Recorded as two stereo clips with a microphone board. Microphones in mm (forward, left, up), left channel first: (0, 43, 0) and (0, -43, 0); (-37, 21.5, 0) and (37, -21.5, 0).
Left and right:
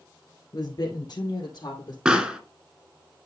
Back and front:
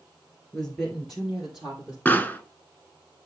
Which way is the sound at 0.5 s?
70° left.